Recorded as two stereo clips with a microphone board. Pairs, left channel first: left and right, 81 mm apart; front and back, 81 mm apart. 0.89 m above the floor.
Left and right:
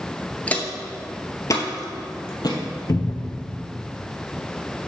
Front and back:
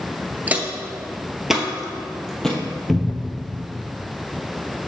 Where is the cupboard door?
90° left, 0.6 m.